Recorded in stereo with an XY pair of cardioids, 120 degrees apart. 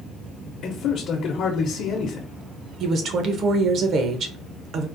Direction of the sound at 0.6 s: 60° left.